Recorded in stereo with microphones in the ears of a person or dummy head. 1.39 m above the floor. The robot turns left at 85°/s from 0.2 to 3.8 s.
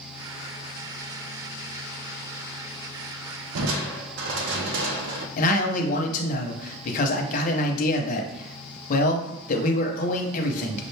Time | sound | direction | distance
3.5 | crushing | 85° right | 0.6 m
5.4 | a man speaking | 40° left (ahead or behind) | 0.8 m